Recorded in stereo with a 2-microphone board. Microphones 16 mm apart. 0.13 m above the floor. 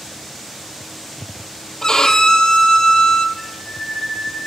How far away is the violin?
About 1.2 m.